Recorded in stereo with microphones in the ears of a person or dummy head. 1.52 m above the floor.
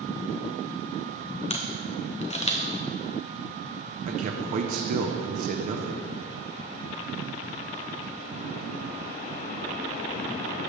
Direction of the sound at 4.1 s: 45° right (ahead or behind).